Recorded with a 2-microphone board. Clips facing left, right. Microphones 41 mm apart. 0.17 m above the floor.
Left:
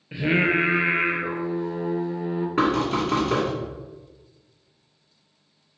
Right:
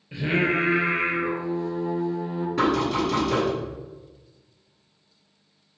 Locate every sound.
0.1 s singing: 25° left (ahead or behind), 0.7 m
2.6 s knocking: 40° left (ahead or behind), 1.5 m